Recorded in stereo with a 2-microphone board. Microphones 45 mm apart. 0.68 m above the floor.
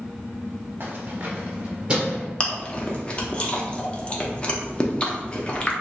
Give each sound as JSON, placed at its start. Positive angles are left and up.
{"t": 0.8, "sound": "keys jangling", "side_deg": -40, "distance_m": 0.9}
{"t": 2.4, "sound": "chewing", "side_deg": 25, "distance_m": 0.7}